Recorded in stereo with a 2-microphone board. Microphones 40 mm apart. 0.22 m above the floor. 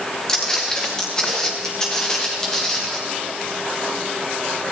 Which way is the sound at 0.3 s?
20° left (ahead or behind).